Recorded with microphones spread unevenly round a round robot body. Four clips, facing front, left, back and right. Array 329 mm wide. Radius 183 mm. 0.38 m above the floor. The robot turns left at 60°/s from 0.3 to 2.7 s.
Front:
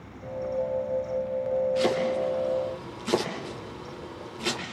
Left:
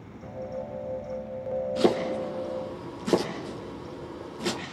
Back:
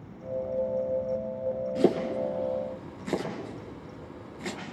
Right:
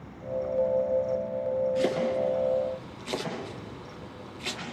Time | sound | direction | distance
1.8 | chopping | 160° left | 5.5 m